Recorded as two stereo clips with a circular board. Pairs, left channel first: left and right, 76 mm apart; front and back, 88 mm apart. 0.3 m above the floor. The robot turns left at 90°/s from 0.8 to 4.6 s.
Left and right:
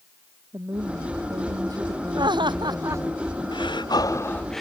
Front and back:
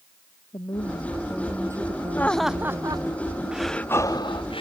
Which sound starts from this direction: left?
Breathing, at 3.5 s.